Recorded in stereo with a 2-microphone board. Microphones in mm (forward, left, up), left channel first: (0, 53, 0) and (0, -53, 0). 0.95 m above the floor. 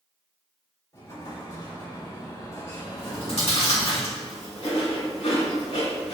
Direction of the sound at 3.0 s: 75° left (ahead or behind).